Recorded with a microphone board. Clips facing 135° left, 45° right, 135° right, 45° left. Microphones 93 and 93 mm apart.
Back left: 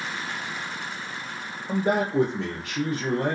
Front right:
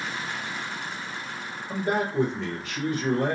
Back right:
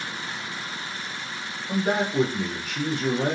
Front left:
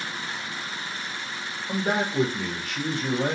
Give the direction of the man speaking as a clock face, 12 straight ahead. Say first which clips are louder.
Back left 3 dB, back right 2 dB; 8 o'clock.